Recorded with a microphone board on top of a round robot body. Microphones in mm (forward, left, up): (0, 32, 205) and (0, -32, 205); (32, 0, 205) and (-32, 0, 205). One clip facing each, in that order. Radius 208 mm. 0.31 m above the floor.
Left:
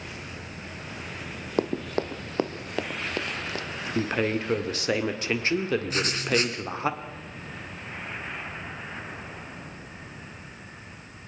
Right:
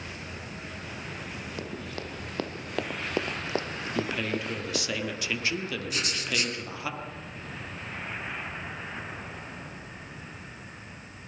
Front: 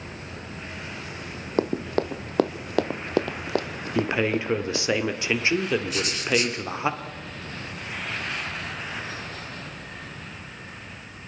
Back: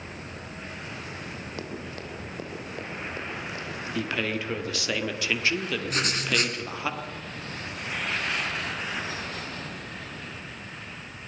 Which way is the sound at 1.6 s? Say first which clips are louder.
Left 14 dB, front 16 dB; 50° left.